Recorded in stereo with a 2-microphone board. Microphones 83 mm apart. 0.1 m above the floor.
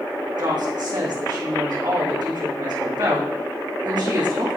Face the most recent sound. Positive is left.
turn(degrees=-60)  # may be behind; listen again after turning